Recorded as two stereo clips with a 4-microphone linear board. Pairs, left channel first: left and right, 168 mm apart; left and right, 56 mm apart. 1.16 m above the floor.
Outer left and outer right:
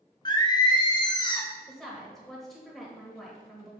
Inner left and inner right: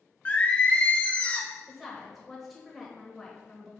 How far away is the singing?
About 0.8 m.